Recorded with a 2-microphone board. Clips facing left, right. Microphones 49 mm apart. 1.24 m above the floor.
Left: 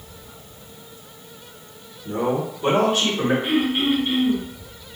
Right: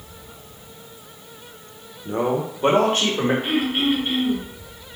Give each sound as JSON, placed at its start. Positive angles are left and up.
{"t": 2.0, "sound": "a man speaking", "side_deg": -20, "distance_m": 0.7}
{"t": 3.4, "sound": "throat clearing", "side_deg": -45, "distance_m": 1.6}